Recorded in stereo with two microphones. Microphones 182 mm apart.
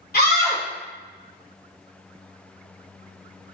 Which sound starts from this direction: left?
A scream, at 0.1 s.